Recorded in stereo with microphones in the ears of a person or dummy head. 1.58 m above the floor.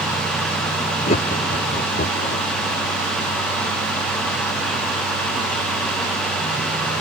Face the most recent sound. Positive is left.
turn(degrees=40)  # may be behind; listen again after turning